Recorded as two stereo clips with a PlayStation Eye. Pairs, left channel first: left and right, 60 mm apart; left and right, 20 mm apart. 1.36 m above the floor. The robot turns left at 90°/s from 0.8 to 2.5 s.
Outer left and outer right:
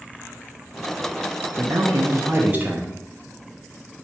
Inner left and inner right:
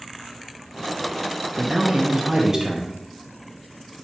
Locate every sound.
1.6 s a man speaking: 60° right, 0.7 m; by 3.0 s 145° right, 0.7 m